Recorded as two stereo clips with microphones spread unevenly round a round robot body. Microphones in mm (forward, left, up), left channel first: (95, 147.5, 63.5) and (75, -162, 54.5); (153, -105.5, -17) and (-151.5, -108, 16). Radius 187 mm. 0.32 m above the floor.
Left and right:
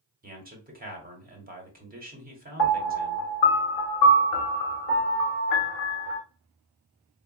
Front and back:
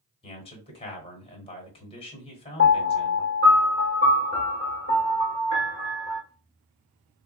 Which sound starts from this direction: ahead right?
A man speaking, at 0.2 s.